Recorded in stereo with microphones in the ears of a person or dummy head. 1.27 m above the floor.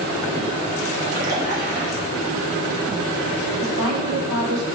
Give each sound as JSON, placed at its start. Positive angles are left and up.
{"t": 1.0, "sound": "a splash", "side_deg": -55, "distance_m": 1.3}
{"t": 3.6, "sound": "a woman speaking", "side_deg": -70, "distance_m": 1.2}